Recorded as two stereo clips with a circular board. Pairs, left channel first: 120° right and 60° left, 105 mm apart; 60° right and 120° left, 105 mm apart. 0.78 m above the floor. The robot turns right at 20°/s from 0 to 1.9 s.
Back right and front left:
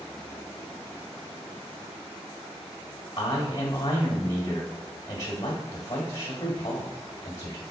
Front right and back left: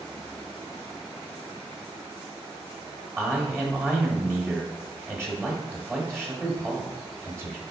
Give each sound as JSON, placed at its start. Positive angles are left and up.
{"t": 3.2, "sound": "a man speaking", "azimuth_deg": -170, "distance_m": 1.1}